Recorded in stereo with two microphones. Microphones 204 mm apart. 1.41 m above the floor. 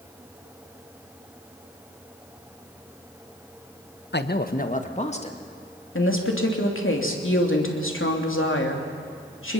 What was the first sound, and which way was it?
A man speaking, 60° left (ahead or behind).